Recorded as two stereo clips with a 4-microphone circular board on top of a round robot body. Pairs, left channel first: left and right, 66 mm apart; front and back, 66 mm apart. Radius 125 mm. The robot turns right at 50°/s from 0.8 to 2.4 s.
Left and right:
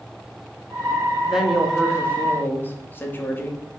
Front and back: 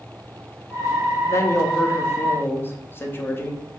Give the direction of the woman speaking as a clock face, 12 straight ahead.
1 o'clock.